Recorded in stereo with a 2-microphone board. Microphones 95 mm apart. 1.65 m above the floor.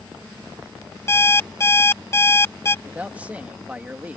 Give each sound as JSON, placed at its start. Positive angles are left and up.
{"t": 1.1, "sound": "an alarm clock", "side_deg": 30}
{"t": 2.9, "sound": "a man speaking", "side_deg": -15}